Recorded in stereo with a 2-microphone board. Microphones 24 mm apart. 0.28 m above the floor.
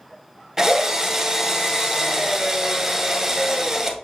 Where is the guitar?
I don't hear a guitar.